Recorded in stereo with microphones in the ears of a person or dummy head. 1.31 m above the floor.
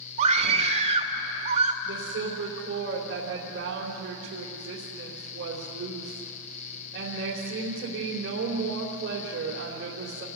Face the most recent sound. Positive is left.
turn(degrees=-70)  # may be behind; listen again after turning